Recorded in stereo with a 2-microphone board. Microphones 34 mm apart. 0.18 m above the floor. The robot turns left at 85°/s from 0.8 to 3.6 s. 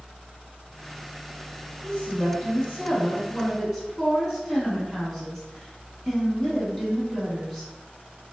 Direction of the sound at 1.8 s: 155° left.